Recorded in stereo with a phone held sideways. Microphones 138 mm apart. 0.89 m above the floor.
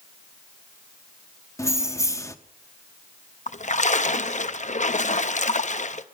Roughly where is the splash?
Left.